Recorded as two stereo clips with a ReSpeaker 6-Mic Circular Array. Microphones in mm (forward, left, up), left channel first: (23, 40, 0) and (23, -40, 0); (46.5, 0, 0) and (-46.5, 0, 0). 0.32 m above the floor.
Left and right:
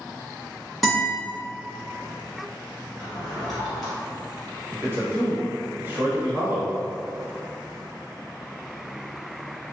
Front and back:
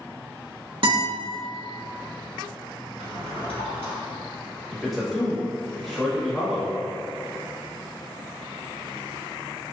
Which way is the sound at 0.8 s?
175° left.